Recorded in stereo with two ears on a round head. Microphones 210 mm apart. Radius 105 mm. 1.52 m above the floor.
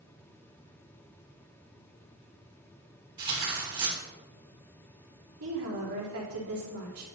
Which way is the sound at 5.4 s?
65° right (ahead or behind).